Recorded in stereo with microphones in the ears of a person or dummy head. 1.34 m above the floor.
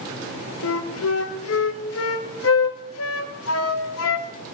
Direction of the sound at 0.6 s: 85° left.